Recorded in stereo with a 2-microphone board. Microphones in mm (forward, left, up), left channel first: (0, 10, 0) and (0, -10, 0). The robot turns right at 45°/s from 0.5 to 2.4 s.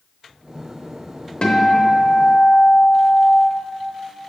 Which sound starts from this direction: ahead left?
A guitar, at 1.4 s.